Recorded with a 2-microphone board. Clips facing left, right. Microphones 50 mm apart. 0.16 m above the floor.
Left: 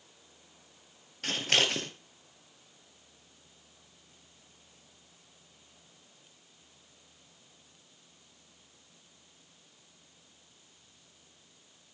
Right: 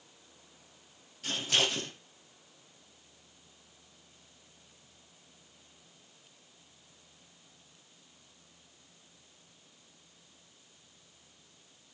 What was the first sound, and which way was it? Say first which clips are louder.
Scissors: left 2 dB; 70° left (ahead or behind).